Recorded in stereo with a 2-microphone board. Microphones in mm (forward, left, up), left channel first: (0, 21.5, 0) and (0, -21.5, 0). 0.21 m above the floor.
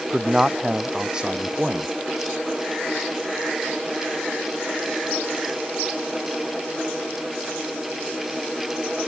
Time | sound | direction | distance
0.1 | a man speaking | 15° right (ahead or behind) | ?